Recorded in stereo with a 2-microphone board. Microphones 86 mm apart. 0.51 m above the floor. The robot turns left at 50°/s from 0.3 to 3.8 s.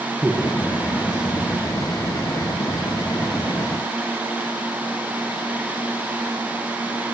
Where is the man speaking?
5° right (ahead or behind), 6.5 m; by 1.5 s 55° left (ahead or behind), 6.5 m.